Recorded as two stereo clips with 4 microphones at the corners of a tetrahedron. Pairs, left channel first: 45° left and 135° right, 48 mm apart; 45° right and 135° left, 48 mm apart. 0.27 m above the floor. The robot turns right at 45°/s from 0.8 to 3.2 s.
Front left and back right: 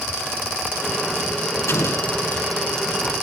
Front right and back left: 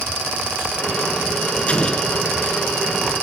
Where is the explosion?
20° left, 0.9 m; by 2.1 s 40° left, 0.9 m.